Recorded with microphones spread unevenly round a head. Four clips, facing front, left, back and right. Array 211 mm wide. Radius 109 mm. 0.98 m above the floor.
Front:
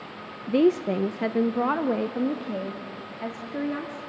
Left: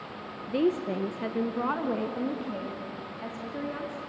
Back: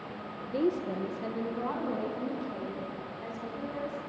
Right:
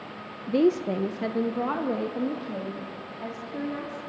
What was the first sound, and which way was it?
A woman speaking, 30° right.